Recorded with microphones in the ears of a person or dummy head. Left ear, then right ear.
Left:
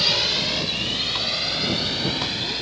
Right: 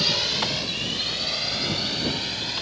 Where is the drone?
5° right (ahead or behind); by 2.6 s 10° right (ahead or behind).